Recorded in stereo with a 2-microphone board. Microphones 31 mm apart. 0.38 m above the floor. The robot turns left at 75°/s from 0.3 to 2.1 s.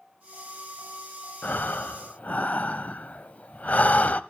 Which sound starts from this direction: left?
Breathing, at 1.4 s.